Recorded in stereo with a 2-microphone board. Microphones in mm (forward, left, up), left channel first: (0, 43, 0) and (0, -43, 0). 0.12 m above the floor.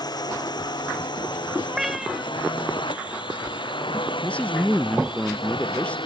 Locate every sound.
0.0 s a drone: 55° left (ahead or behind); by 6.1 s 85° left
1.7 s a cat meowing: 5° right (ahead or behind)
4.2 s a man speaking: 20° left (ahead or behind)